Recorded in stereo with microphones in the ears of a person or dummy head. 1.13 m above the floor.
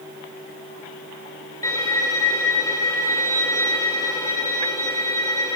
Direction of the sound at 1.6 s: 20° left (ahead or behind).